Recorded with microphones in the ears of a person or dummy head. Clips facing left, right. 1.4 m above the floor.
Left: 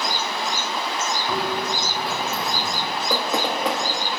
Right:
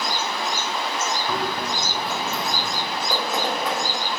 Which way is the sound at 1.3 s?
10° left (ahead or behind).